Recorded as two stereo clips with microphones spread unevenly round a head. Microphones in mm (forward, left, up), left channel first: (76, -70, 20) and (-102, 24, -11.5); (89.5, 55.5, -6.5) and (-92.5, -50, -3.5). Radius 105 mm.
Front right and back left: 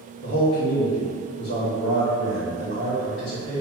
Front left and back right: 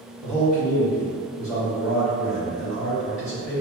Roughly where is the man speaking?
Ahead right.